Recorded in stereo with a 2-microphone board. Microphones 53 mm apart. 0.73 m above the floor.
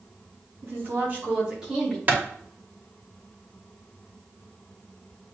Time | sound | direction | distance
0.6 | a woman speaking | 45° right (ahead or behind) | 1.8 m
2.1 | a clap | 35° right (ahead or behind) | 0.8 m